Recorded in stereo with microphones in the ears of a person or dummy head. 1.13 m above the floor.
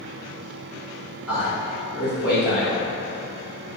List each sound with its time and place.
1.3 s a man speaking: 10° right (ahead or behind), 1.5 m